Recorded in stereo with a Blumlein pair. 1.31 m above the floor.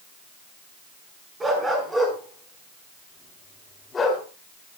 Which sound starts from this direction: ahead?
A dog barking, at 1.4 s.